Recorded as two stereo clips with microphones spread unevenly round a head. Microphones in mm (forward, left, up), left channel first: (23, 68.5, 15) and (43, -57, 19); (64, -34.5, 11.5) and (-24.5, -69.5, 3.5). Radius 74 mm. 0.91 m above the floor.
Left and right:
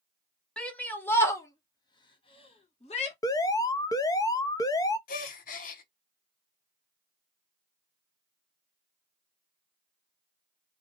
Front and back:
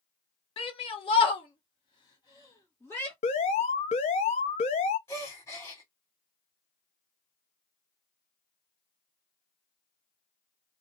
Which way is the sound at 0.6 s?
20° left.